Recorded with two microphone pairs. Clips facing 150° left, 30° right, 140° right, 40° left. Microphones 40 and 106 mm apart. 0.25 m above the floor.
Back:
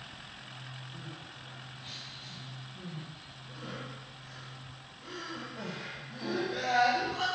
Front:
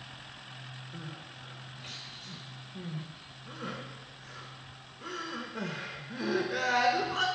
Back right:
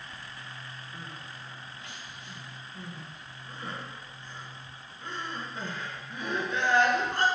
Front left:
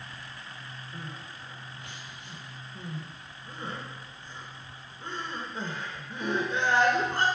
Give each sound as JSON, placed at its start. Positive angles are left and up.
{"t": 0.9, "sound": "crying", "azimuth_deg": -25, "distance_m": 0.6}